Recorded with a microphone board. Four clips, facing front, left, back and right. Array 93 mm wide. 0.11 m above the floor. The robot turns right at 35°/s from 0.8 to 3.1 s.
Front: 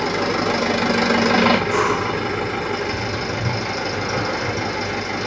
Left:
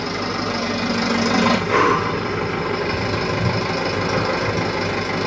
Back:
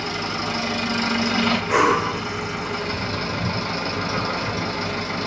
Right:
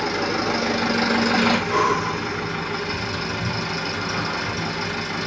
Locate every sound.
0.0 s an engine running: 5° right, 1.3 m; by 5.3 s 80° left, 1.3 m
1.7 s breathing: 120° left, 0.5 m; by 2.2 s 135° left, 0.5 m